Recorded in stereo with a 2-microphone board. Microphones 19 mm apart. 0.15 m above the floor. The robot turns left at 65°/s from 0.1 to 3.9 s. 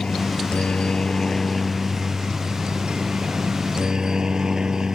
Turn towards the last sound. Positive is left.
turn(degrees=-145)